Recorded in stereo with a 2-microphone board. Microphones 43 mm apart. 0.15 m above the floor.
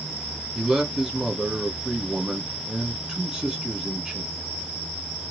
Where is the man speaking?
15° right (ahead or behind), 1.2 m.